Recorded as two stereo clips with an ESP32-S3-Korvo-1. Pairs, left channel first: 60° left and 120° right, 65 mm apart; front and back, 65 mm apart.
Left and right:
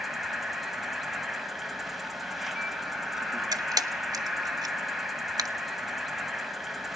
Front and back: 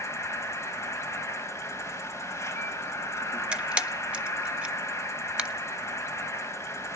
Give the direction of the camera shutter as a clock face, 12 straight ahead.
4 o'clock.